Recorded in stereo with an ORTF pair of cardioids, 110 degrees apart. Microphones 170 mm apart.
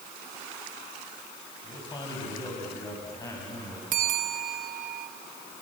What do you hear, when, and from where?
1.6 s a man speaking: 30° left, 6.5 m; by 3.8 s 20° left, 8 m
3.9 s a bell: 50° right, 1.1 m